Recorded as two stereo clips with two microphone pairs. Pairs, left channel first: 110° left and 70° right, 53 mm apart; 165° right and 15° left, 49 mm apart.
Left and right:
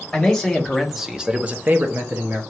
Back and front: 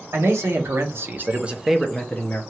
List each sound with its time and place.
0.1 s a man speaking: 30° left, 1.3 m; by 2.4 s 110° right, 0.9 m